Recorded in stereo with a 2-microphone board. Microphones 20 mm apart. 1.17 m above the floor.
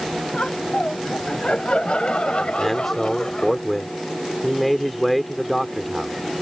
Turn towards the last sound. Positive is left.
turn(degrees=5)  # may be behind; listen again after turning